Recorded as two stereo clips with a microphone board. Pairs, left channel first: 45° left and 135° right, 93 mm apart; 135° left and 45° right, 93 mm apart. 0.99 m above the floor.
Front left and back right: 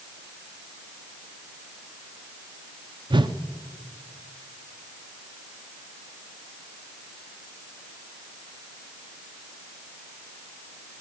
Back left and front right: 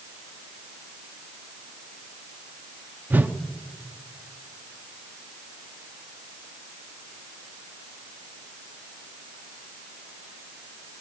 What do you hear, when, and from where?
3.1 s a whoosh: 115° right, 0.6 m